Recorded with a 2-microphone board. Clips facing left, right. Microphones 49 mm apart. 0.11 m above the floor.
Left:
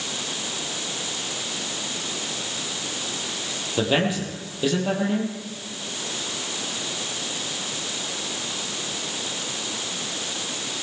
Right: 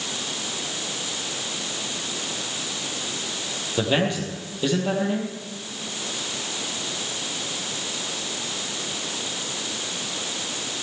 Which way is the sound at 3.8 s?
5° left (ahead or behind).